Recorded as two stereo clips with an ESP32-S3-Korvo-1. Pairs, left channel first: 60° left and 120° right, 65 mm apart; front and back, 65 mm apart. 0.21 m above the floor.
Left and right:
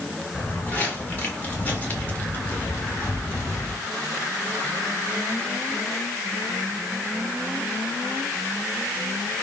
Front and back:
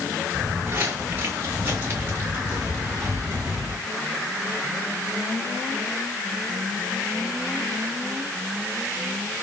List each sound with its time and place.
0.3 s footsteps: 125° left, 5.5 m; by 3.8 s 130° left, 3.5 m